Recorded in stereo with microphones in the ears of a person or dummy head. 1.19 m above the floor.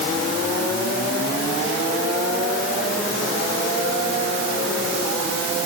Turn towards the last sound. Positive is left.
No sound to turn to.